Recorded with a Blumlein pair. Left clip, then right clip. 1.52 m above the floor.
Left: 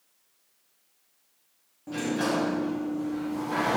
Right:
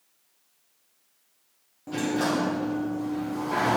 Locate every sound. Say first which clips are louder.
1.9 s a sliding door: right 2 dB; 5° right, 1.4 m